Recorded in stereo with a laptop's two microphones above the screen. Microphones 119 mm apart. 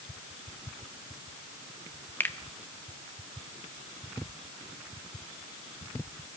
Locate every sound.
2.2 s a finger snap: 20° left (ahead or behind), 0.6 m